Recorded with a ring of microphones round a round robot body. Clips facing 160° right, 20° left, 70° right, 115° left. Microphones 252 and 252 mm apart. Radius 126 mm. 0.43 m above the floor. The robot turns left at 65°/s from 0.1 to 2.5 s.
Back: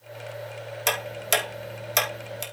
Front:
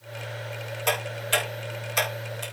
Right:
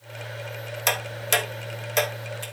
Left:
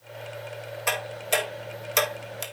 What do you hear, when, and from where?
0.9 s ticking: 105° right, 3.5 m; by 2.4 s 155° left, 3.5 m